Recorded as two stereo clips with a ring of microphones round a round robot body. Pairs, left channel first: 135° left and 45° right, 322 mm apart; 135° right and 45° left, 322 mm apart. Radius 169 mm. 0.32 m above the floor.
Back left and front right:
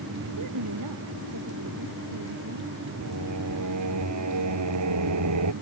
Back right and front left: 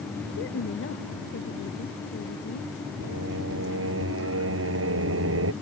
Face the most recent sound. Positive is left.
turn(degrees=-5)